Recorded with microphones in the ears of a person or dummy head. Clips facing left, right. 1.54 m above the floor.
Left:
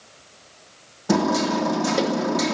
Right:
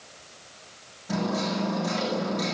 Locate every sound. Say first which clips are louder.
1.1 s hammering: left 8 dB; 75° left (ahead or behind), 3 m